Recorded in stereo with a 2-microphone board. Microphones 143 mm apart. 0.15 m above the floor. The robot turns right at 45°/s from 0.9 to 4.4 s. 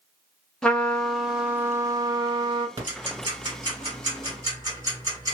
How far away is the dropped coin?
I don't hear a dropped coin.